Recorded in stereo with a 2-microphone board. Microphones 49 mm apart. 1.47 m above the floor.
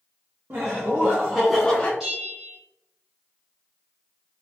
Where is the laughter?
60° right (ahead or behind), 0.8 m; by 1.9 s 25° left (ahead or behind), 0.7 m.